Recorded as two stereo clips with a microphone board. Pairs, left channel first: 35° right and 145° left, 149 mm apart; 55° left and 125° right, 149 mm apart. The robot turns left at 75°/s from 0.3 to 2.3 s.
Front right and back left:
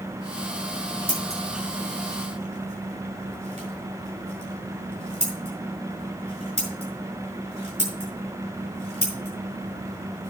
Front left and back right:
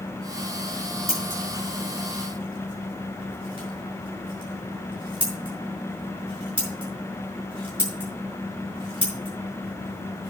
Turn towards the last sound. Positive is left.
turn(degrees=-175)